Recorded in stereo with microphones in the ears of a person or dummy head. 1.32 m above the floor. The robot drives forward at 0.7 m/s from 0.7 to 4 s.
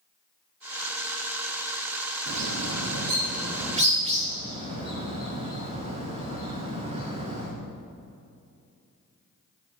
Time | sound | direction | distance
2.3 | a bird | 65° right (ahead or behind) | 1.0 m